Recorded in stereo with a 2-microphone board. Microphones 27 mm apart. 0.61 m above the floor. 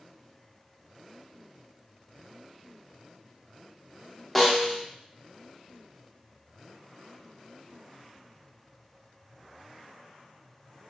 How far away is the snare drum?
About 0.6 m.